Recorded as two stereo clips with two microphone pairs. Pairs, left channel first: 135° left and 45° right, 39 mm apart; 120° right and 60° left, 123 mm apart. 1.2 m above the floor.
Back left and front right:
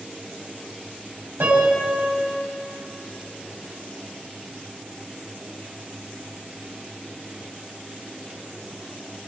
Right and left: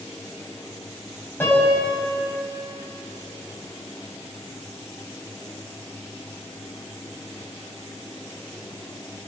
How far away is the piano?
About 7.5 m.